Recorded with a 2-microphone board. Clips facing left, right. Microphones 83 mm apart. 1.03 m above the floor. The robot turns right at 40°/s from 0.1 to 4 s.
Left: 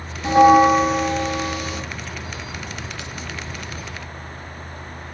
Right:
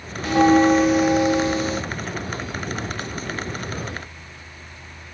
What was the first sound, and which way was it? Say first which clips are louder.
A bell: left 3 dB; 155° left.